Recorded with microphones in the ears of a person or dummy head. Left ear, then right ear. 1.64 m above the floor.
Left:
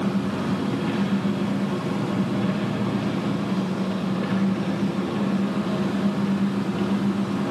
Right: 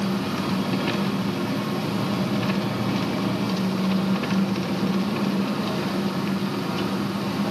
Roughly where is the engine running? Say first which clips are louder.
Even; right.